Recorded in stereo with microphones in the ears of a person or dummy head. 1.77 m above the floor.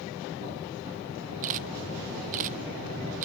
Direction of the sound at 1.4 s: 45° right (ahead or behind).